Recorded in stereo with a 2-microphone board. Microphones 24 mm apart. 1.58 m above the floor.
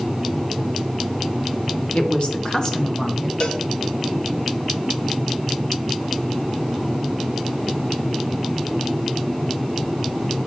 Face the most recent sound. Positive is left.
turn(degrees=50)  # may be behind; listen again after turning